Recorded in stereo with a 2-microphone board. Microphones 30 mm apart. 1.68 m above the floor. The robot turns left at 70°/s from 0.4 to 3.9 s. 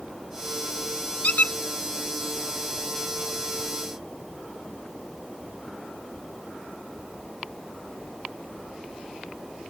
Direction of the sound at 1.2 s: 65° left (ahead or behind).